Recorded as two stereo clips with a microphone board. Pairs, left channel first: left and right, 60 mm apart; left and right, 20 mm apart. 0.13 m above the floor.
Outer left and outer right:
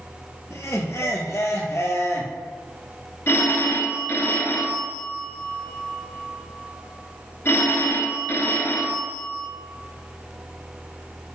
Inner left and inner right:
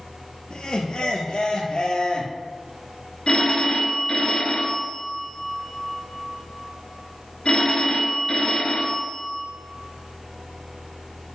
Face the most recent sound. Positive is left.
turn(degrees=45)  # may be behind; listen again after turning